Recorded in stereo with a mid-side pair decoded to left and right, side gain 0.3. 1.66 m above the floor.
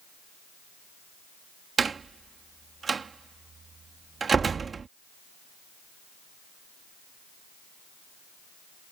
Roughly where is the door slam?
Ahead right.